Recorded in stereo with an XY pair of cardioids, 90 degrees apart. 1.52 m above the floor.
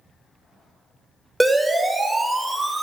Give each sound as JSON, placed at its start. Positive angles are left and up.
{"t": 1.4, "sound": "a siren", "azimuth_deg": -5, "distance_m": 4.5}